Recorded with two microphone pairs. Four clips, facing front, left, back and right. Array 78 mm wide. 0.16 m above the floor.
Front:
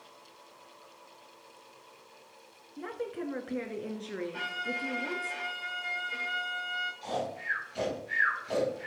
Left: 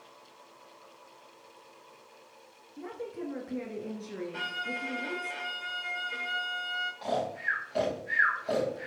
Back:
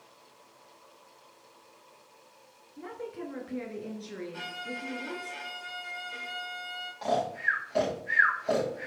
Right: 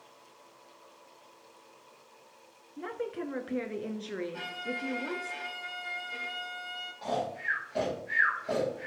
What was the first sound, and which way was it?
A woman speaking, 65° right.